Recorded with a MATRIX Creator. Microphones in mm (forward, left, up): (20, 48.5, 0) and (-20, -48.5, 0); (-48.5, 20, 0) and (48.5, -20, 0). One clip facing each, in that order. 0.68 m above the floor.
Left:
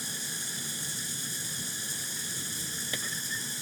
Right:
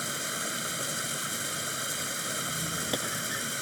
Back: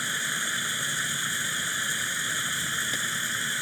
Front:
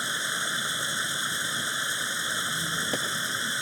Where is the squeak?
55° right.